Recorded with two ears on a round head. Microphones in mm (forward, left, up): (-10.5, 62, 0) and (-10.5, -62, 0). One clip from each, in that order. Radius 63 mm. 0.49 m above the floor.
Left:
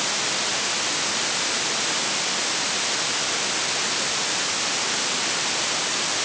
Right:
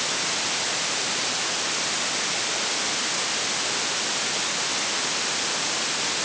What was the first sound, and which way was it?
Only background noise.